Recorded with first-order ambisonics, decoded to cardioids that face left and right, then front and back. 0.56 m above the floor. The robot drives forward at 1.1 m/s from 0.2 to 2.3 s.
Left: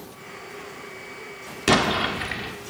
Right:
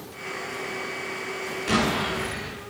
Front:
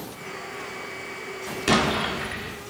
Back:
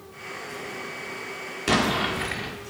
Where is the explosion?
80° left, 1.3 m; by 2.5 s 120° left, 1.4 m.